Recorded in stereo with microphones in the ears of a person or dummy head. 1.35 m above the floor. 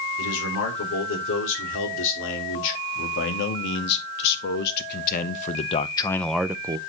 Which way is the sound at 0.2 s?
75° left (ahead or behind).